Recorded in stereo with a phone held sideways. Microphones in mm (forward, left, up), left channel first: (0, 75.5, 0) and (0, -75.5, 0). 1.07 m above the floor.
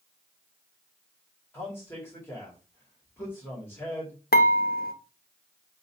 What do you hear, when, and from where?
1.5 s a man speaking: 15° left (ahead or behind), 1.9 m
4.3 s dishes clattering: 90° left, 0.6 m